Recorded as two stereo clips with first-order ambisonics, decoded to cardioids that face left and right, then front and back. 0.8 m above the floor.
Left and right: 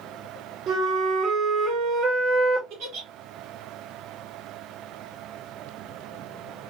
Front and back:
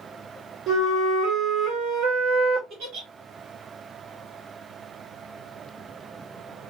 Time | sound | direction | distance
0.7 | a flute | 135° right | 0.8 m
2.7 | a giggle | 130° right | 1.3 m